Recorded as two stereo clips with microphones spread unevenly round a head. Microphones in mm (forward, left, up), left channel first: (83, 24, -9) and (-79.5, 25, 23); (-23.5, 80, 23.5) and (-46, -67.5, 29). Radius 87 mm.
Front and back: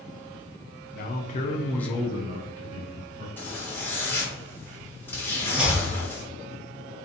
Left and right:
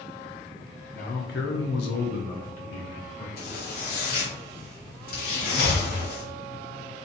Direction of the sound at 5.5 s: 100° left.